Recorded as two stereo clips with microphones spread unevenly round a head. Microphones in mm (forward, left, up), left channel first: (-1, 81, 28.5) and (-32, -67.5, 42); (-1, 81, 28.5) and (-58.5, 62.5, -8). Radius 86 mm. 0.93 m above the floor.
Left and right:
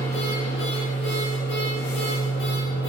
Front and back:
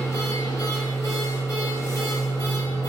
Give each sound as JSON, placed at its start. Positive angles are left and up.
{"t": 0.0, "sound": "a machine running", "azimuth_deg": 50, "distance_m": 5.0}